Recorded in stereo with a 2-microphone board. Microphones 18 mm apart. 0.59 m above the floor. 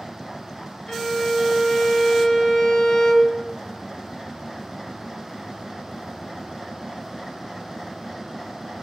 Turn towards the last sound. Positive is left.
turn(degrees=45)  # may be behind; listen again after turning